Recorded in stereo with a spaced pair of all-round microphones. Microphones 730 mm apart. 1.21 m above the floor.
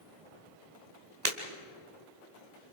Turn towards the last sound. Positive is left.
turn(degrees=-65)  # may be behind; listen again after turning